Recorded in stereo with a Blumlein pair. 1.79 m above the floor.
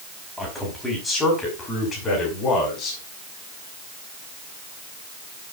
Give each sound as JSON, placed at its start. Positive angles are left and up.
{"t": 0.4, "sound": "a man speaking", "azimuth_deg": 5, "distance_m": 5.5}